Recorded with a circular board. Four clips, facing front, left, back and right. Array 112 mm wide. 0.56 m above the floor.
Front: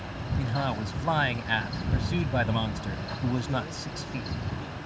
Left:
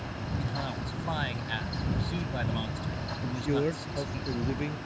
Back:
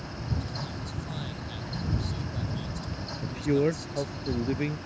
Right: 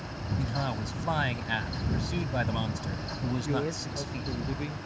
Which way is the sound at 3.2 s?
165° left.